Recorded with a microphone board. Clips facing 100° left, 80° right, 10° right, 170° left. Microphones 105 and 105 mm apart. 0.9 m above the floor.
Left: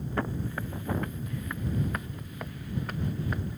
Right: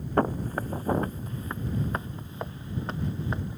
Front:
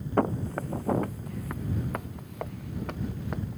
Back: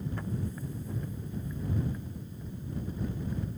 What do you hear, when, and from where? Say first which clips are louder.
0.2 s footsteps: right 7 dB, front 10 dB; 30° right; by 3.6 s 15° right